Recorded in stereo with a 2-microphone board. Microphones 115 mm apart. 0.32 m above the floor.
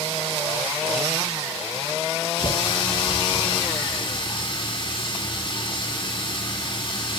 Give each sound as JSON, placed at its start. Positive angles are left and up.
{"t": 2.4, "sound": "a running tap", "side_deg": 50, "distance_m": 7.0}